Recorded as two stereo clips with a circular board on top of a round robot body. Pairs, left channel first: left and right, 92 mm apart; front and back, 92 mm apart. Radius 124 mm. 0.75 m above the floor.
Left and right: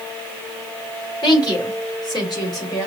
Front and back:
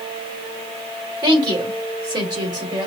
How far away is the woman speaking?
About 4 m.